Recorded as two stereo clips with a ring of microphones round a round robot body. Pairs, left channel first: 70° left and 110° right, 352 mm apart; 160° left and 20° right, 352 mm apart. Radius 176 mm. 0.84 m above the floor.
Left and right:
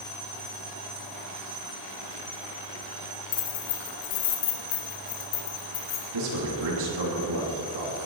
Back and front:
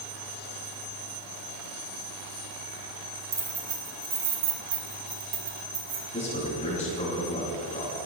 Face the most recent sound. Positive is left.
turn(degrees=-130)